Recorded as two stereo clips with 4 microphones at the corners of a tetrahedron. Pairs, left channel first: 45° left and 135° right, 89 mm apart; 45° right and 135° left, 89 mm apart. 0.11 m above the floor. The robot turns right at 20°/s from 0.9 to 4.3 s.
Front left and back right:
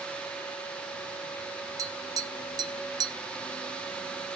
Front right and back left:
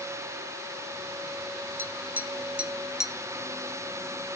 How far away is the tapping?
About 0.6 m.